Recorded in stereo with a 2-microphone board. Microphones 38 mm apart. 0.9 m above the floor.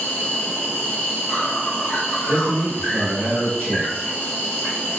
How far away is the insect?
About 1.2 m.